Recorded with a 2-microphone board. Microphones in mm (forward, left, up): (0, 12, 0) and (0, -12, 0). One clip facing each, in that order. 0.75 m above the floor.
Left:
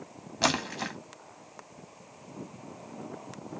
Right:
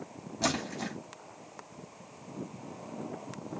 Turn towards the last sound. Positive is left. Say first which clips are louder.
# left 4 dB
turn(degrees=45)  # may be behind; listen again after turning